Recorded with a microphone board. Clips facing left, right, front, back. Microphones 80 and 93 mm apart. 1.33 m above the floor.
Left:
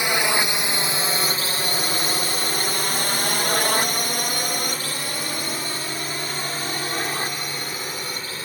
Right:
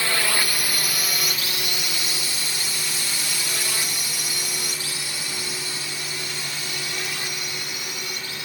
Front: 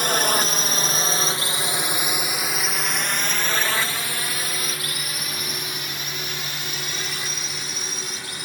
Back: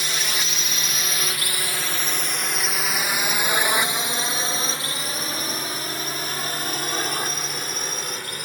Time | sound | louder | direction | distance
0.0 | a drone | left 3 dB, front 7 dB | 25° left | ?